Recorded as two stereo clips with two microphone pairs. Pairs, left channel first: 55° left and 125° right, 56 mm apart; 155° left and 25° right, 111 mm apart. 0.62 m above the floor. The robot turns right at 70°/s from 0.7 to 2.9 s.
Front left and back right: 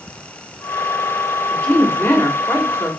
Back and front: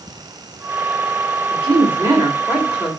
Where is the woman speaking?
15° right, 1.5 m; by 2.9 s 80° left, 1.5 m.